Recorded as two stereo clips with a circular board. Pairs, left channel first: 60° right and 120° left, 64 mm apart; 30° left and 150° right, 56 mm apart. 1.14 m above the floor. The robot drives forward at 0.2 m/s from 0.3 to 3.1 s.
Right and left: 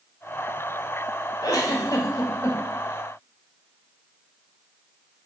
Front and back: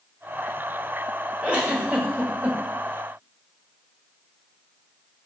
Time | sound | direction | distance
1.4 | a giggle | 80° right | 1.0 m